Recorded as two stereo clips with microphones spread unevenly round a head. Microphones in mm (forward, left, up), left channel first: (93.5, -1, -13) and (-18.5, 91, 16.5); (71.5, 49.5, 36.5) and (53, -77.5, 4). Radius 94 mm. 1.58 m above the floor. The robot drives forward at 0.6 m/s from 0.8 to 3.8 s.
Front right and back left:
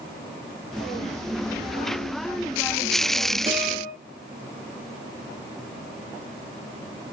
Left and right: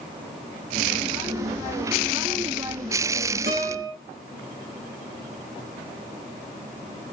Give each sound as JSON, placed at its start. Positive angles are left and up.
{"t": 3.5, "sound": "a guitar", "azimuth_deg": -145, "distance_m": 4.5}